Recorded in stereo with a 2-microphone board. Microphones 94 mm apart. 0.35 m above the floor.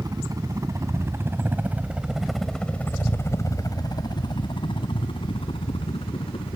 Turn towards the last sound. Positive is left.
turn(degrees=75)  # may be behind; listen again after turning